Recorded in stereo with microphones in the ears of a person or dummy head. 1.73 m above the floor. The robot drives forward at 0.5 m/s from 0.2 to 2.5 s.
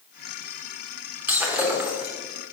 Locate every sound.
1.3 s breaking glass: 10° right (ahead or behind), 2.5 m